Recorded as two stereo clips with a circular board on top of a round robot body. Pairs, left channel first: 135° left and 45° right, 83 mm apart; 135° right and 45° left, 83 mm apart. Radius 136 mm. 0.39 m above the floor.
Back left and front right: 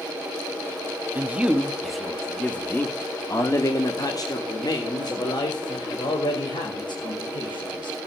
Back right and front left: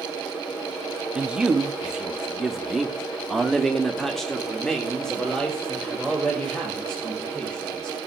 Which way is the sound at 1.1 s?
15° right.